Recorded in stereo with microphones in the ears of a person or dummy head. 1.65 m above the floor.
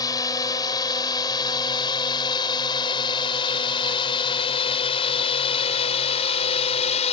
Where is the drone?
25° left (ahead or behind); by 7.1 s 40° left (ahead or behind).